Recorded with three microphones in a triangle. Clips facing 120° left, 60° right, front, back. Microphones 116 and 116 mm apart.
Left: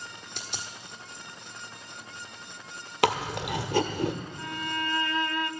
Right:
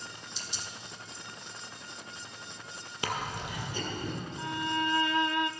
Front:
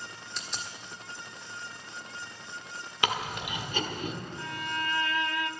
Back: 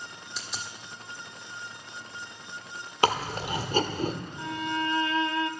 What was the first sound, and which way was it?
A dropped coin, 90° left.